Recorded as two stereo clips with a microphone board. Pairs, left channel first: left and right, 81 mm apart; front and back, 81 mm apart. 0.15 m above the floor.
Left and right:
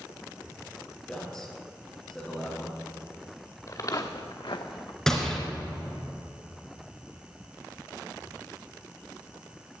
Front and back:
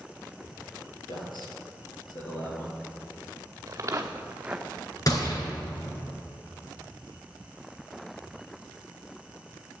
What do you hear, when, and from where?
1.1 s a man speaking: 5° left, 3 m
3.7 s footsteps: 135° left, 1.4 m; by 5.0 s 80° left, 0.9 m
5.1 s a gunshot: 5° left, 2.5 m